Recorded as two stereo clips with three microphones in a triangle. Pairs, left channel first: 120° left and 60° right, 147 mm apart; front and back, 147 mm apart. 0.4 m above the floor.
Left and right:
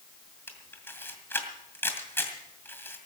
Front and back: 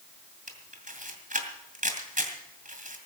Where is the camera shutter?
165° right, 2 m.